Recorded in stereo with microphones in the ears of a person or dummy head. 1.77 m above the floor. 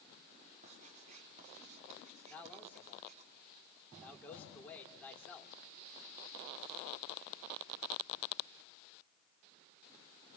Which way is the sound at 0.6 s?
35° right (ahead or behind).